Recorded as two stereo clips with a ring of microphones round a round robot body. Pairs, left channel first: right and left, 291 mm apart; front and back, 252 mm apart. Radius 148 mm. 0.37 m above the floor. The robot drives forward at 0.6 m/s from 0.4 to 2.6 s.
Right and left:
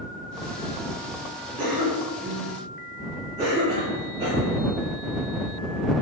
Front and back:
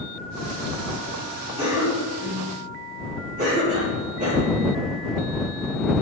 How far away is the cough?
About 1.3 m.